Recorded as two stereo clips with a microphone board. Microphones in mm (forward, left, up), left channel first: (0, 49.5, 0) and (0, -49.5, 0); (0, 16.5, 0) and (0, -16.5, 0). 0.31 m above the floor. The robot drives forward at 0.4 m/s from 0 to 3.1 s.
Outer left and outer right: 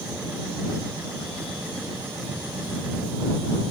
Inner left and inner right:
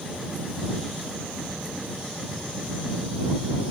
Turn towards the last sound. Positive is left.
No sound to turn to.